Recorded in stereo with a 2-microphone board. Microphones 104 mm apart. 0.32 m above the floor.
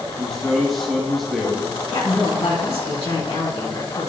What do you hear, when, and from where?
0.2 s a man speaking: centre (ahead or behind), 3.5 m
1.9 s a woman speaking: 70° left (ahead or behind), 3.5 m